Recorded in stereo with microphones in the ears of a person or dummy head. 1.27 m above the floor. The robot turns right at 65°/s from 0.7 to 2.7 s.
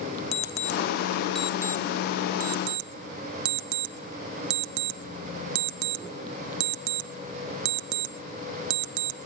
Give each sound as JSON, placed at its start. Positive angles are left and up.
{"t": 0.3, "sound": "an alarm clock", "side_deg": 45, "distance_m": 1.3}